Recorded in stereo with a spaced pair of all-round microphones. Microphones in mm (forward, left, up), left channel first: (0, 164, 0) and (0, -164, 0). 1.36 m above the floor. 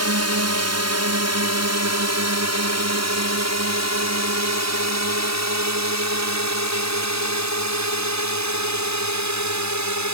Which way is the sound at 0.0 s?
50° right (ahead or behind).